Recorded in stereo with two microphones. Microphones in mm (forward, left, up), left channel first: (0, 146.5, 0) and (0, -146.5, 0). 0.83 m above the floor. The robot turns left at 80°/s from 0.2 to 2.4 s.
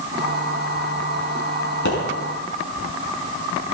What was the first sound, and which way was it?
A pop, 80° left.